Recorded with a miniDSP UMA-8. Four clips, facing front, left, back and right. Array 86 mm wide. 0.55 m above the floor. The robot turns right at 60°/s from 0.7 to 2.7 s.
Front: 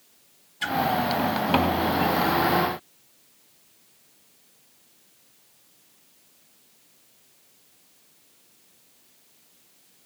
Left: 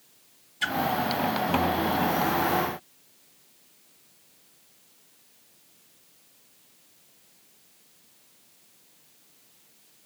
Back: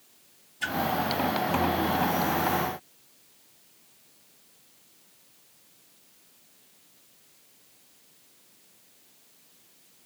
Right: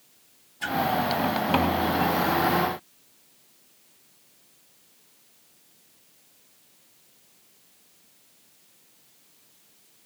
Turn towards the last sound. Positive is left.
turn(degrees=165)